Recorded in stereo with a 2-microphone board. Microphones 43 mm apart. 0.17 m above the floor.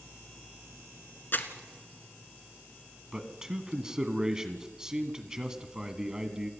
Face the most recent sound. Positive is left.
turn(degrees=-15)  # may be behind; listen again after turning